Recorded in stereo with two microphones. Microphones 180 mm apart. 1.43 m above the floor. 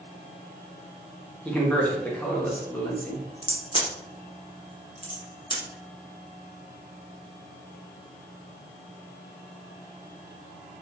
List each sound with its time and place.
1.4 s a man speaking: 10° left (ahead or behind), 0.8 m
3.4 s a crack: 25° left (ahead or behind), 0.9 m